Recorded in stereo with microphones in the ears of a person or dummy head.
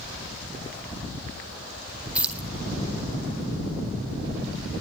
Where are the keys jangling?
5° right (ahead or behind), 1.7 m.